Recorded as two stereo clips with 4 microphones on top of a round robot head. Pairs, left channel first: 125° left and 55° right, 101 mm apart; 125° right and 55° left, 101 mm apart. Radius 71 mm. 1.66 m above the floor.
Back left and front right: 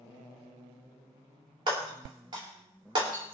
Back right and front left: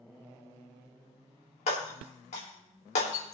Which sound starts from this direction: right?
Breaking glass, at 1.7 s.